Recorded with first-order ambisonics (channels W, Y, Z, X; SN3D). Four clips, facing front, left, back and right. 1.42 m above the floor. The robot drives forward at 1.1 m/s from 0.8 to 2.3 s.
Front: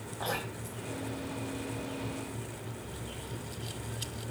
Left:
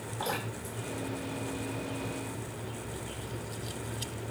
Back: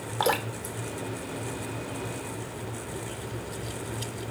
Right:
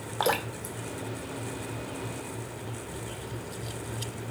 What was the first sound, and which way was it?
Dripping, 135° right.